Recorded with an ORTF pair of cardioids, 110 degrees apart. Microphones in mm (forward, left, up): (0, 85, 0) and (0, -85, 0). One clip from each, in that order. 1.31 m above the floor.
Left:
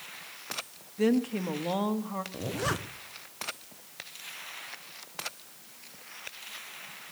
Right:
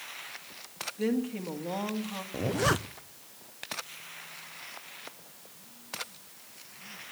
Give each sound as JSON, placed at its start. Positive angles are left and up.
{"t": 1.0, "sound": "a woman speaking", "azimuth_deg": 30, "distance_m": 1.7}
{"t": 2.3, "sound": "a zipper", "azimuth_deg": -20, "distance_m": 0.6}